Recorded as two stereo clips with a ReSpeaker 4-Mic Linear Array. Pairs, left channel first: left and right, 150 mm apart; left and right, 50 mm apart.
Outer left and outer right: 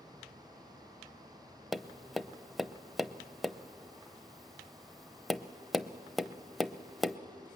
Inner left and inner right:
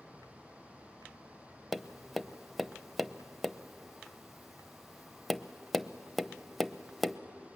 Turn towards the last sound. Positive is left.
turn(degrees=0)  # may be behind; listen again after turning